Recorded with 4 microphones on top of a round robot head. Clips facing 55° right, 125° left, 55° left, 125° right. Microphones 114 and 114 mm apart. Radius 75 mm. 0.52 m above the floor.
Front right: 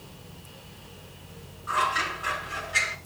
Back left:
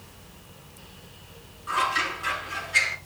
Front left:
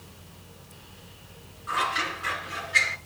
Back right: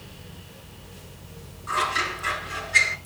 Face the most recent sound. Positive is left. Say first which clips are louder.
# even, back right 2 dB
turn(degrees=-170)